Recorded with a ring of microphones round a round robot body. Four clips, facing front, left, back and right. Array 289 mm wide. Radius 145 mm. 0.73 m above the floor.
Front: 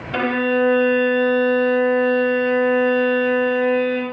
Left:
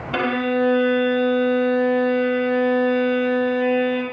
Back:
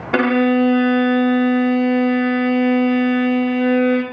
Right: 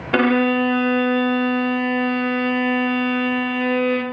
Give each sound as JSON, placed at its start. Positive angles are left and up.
{"t": 0.1, "sound": "a violin", "azimuth_deg": -145, "distance_m": 0.8}